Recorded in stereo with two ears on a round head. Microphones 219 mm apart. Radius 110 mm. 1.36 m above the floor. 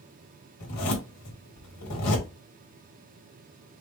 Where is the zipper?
80° left, 1.5 m.